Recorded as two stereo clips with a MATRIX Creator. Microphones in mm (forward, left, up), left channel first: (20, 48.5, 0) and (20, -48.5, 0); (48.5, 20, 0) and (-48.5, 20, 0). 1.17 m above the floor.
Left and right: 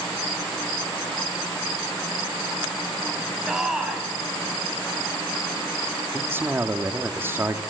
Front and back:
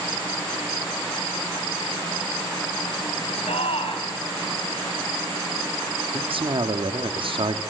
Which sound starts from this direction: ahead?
A shout, at 3.5 s.